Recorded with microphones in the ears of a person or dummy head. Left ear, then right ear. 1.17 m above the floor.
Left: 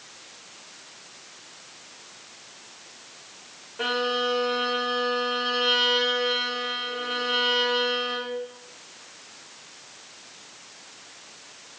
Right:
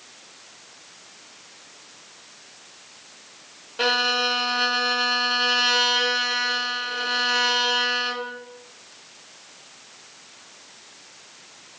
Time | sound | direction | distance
3.8 | a violin | 85° right | 1.9 m